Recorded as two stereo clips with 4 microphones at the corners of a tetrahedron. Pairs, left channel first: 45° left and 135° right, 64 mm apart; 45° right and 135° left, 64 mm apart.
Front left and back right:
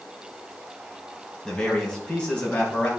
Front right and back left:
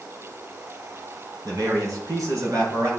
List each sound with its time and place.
1.4 s a man speaking: 125° left, 2.5 m; by 2.9 s 115° left, 4.5 m